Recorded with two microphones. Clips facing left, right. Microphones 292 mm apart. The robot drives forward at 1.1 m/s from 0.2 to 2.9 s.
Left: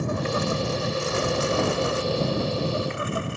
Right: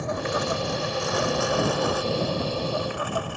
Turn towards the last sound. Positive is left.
turn(degrees=25)  # may be behind; listen again after turning